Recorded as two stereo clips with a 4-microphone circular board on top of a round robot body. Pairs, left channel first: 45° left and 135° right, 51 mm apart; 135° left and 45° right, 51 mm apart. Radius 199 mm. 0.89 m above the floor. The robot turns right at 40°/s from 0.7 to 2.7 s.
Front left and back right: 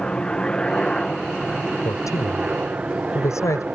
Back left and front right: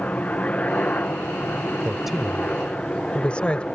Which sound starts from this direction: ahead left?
A man speaking, at 1.9 s.